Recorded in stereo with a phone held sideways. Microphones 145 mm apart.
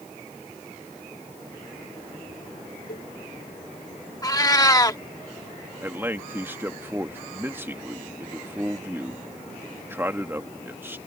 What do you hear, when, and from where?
2.9 s a cowbell: 80° left
4.2 s a cat meowing: 25° left (ahead or behind)
5.8 s a man speaking: 15° right (ahead or behind)